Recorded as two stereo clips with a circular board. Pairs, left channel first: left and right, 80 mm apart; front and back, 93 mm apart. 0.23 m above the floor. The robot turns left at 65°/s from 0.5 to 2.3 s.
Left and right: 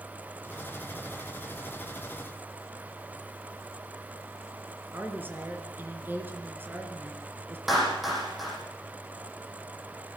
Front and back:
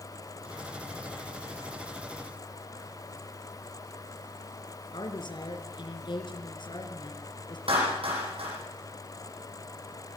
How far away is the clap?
About 9.5 m.